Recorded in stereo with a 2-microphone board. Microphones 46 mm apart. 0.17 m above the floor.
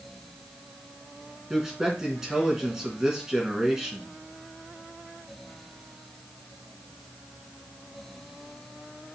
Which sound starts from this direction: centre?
A man speaking, at 1.5 s.